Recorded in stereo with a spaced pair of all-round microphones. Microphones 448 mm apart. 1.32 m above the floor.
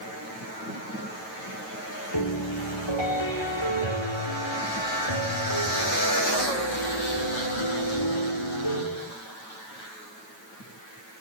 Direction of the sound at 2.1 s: 75° left (ahead or behind).